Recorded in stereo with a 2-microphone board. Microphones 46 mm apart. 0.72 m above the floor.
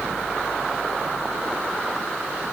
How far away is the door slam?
I don't hear a door slam.